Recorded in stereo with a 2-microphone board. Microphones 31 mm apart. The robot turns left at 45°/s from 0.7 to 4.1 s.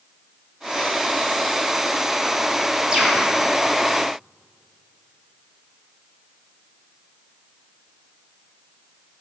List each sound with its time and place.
2.9 s a bird: 20° right (ahead or behind), 1.6 m; by 3.3 s 10° right (ahead or behind), 1.6 m